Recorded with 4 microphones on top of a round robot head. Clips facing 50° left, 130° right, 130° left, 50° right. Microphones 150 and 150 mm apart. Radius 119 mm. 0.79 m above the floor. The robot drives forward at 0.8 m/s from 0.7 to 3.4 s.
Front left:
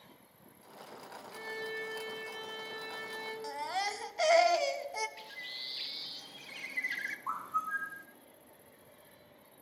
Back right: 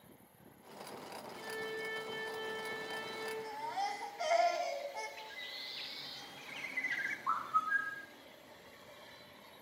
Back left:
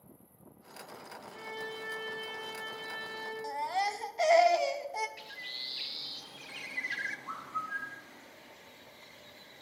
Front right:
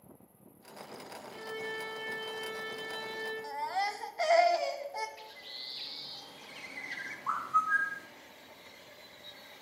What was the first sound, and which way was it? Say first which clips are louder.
A violin: front left 2 dB, front right 2 dB; 35° left.